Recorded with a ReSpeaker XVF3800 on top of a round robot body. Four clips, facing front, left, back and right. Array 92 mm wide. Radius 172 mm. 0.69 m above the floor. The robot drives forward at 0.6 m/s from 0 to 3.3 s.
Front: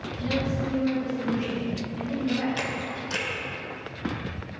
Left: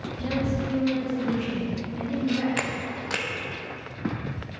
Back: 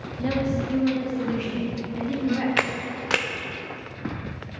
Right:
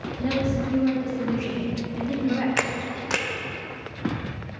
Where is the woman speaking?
150° right, 2.0 m; by 2.5 s 165° right, 3 m.